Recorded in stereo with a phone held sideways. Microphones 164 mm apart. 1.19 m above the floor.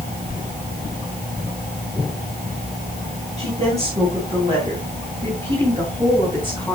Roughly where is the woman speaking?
Right.